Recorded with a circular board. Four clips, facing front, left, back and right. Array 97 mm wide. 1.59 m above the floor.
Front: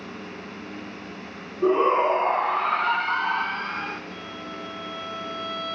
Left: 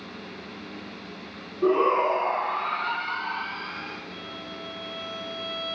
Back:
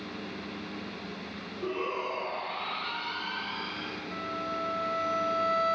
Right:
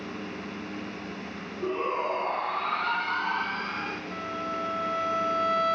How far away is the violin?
About 1.3 m.